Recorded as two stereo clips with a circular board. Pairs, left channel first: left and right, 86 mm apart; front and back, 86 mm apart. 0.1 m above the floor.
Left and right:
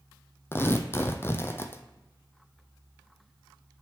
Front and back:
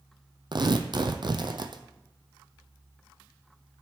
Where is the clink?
I don't hear a clink.